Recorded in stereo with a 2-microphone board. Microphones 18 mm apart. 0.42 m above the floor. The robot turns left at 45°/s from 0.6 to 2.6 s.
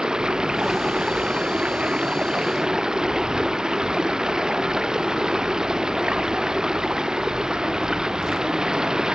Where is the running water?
45° right; by 9.2 s 135° right.